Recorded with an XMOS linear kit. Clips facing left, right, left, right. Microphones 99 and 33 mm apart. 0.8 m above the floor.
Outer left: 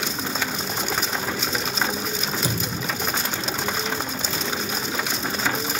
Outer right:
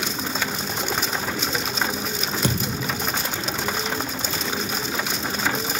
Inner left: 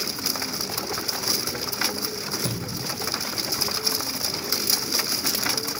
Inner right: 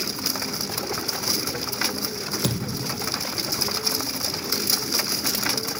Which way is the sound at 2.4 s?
65° right (ahead or behind).